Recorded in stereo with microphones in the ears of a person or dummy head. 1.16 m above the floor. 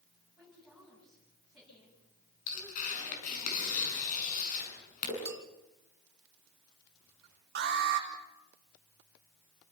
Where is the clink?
5° right (ahead or behind), 1.0 m.